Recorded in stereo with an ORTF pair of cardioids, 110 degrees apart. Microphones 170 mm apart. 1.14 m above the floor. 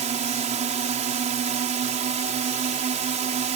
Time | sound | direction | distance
0.0 | a drone | 45° right | ?